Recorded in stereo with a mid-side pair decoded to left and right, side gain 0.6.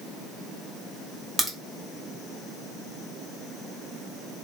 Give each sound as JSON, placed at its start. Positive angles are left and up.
{"t": 1.4, "sound": "a crack", "azimuth_deg": -10, "distance_m": 1.0}